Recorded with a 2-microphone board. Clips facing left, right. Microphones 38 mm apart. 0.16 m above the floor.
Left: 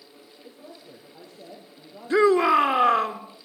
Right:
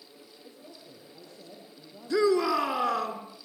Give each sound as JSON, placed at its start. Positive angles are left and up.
{"t": 0.4, "sound": "a man speaking", "side_deg": 25, "distance_m": 6.5}
{"t": 2.1, "sound": "a shout", "side_deg": 40, "distance_m": 2.0}